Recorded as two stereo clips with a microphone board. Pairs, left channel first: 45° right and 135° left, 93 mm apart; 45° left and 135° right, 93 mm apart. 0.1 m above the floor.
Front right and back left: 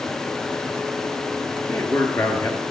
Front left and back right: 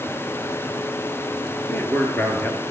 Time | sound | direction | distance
1.7 | a man speaking | 10° right | 1.6 m